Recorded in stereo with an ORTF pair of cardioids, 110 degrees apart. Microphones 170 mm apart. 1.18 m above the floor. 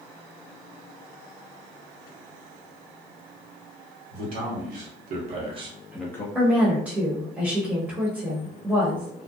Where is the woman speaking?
5° right, 0.9 m.